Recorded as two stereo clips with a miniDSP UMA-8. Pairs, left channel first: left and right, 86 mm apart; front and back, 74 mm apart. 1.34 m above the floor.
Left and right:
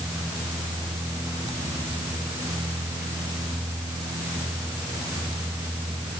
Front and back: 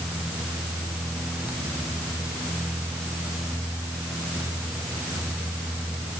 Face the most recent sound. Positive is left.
No sound to turn to.